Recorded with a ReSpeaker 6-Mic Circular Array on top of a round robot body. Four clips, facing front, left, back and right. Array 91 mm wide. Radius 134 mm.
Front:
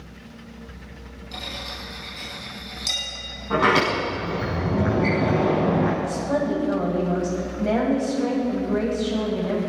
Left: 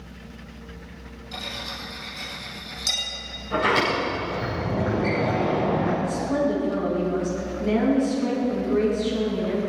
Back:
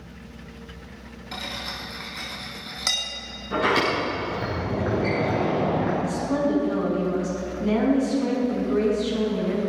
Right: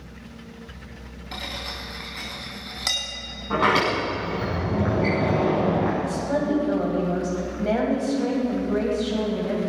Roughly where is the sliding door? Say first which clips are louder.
Right 1 dB, front 3 dB; ahead right.